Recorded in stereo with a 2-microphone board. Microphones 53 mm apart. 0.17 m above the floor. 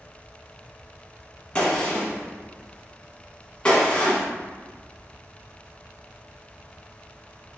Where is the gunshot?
20° left (ahead or behind), 0.9 m.